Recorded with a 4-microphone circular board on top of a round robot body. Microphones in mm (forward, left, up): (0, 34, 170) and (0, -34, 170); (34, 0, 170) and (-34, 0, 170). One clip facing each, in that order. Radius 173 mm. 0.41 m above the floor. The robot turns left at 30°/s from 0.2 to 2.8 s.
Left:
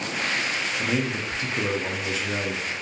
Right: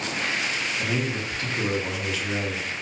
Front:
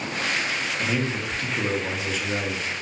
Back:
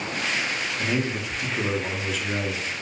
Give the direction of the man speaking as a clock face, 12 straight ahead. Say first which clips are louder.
Left 3 dB, back 1 dB; 8 o'clock.